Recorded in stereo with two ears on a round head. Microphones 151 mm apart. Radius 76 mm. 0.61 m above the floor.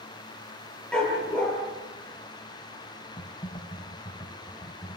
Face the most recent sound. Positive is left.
turn(degrees=25)  # may be behind; listen again after turning